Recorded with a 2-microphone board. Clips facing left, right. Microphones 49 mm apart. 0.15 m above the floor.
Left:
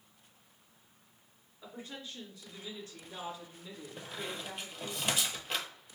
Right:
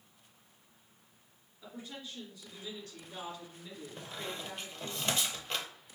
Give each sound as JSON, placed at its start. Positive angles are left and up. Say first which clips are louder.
{"t": 1.6, "sound": "a woman speaking", "louder": "even", "side_deg": 35, "distance_m": 2.0}
{"t": 4.0, "sound": "a squeak", "louder": "left 1 dB", "side_deg": 10, "distance_m": 0.7}